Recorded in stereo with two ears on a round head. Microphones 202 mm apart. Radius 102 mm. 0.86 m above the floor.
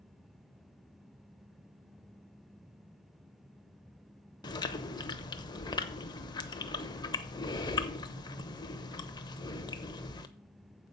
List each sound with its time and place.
4.4 s chewing: 20° left (ahead or behind), 0.8 m